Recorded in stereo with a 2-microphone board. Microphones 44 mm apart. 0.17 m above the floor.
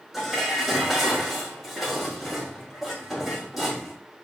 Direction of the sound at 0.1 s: 5° right (ahead or behind).